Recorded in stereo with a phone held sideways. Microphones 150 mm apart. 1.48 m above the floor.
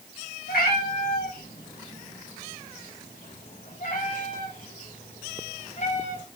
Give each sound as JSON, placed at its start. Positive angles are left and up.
{"t": 0.5, "sound": "a cat meowing", "side_deg": 85, "distance_m": 5.0}